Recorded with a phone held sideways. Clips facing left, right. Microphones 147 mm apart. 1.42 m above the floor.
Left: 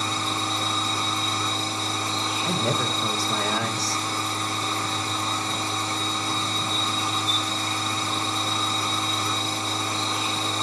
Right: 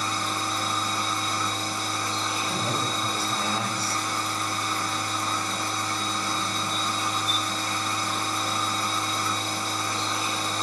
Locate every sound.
0.0 s a machine running: 25° left (ahead or behind), 2 m
2.4 s a man speaking: 80° left, 2 m